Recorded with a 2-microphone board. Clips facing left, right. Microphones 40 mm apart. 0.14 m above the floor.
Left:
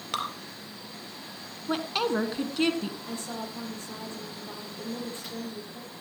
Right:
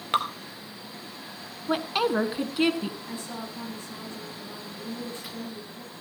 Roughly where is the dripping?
Right.